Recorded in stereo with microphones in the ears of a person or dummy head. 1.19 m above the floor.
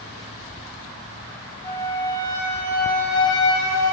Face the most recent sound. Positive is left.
turn(degrees=15)  # may be behind; listen again after turning